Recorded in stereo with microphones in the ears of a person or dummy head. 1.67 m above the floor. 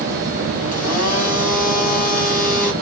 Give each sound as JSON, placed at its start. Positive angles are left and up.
{"t": 0.7, "sound": "a blender", "side_deg": 45, "distance_m": 7.0}